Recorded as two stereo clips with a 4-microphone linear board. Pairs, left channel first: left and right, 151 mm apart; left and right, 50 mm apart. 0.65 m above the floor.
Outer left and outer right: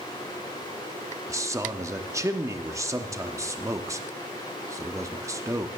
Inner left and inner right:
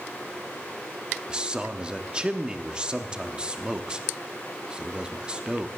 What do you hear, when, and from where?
1.3 s a man speaking: 20° right (ahead or behind), 0.9 m